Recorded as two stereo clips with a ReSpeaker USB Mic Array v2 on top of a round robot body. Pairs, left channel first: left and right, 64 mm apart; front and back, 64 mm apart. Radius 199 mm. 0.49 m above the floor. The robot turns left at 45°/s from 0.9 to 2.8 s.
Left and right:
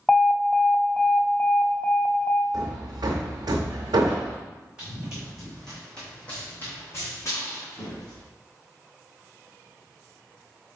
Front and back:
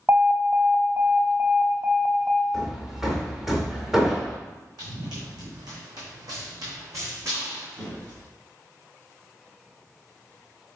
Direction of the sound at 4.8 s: 165° right.